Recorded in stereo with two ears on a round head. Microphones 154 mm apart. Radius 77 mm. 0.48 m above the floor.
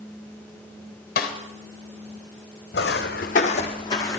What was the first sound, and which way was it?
A snare drum, 50° left (ahead or behind).